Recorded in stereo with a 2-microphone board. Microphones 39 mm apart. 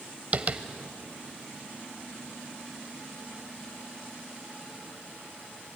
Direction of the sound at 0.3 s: 35° right (ahead or behind).